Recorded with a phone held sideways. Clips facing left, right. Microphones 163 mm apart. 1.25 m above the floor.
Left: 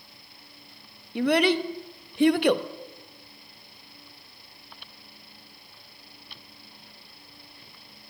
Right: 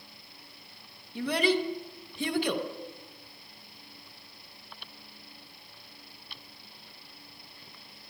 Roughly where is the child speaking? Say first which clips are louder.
Left 5 dB; left.